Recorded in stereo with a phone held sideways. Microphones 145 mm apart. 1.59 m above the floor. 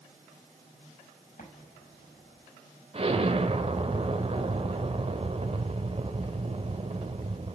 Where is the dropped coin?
I don't hear a dropped coin.